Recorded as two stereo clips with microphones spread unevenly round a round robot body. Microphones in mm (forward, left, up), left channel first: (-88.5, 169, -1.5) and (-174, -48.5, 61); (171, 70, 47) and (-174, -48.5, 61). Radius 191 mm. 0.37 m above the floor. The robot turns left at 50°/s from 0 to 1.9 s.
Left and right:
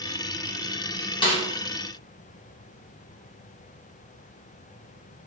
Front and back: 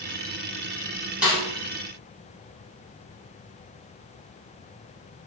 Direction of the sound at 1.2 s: 110° left.